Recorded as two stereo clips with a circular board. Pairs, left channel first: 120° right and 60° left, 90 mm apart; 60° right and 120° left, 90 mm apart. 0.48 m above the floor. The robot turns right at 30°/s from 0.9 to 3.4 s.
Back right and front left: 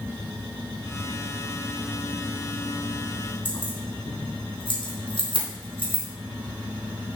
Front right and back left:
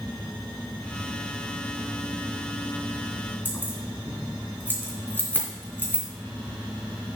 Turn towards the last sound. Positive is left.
turn(degrees=-130)